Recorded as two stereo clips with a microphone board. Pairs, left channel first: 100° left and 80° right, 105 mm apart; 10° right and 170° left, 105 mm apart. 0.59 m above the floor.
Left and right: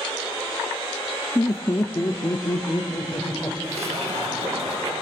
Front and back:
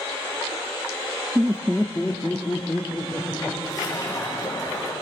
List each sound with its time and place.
1.4 s laughter: 130° left, 0.6 m; by 3.5 s 40° left, 1.9 m
3.6 s a splash: 70° right, 5 m